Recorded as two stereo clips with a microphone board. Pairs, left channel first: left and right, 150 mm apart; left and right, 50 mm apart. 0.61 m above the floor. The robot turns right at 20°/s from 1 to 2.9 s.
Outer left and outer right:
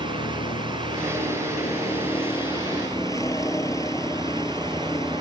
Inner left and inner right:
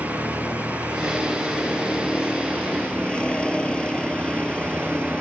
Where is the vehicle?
120° left; by 5.2 s 160° left.